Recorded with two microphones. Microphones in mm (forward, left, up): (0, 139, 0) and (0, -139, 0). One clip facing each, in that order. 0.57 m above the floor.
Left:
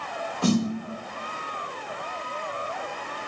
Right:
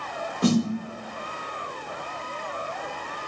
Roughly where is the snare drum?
Centre.